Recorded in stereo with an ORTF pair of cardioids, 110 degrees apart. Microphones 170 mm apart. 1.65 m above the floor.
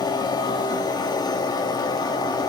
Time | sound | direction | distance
0.0 | a machine running | 25° left | 2.5 m